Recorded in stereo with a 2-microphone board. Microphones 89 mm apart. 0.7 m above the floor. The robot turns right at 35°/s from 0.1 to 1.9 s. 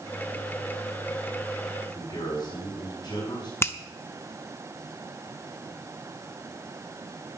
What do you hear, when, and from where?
1.9 s a man speaking: 55° left (ahead or behind), 6 m
3.6 s a finger snap: 30° left (ahead or behind), 0.7 m